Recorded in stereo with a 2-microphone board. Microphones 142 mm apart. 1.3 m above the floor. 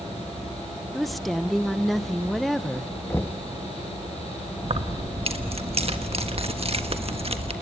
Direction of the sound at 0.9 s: Centre (ahead or behind).